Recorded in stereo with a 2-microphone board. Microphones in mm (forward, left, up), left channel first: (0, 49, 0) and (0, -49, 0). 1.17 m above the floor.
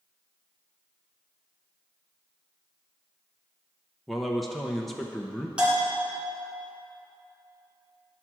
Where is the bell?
10° right (ahead or behind), 3 m.